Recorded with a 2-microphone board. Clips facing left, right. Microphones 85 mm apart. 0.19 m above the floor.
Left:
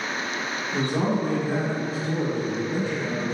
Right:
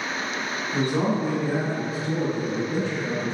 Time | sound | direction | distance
0.7 | a man speaking | 15° right (ahead or behind) | 1.7 m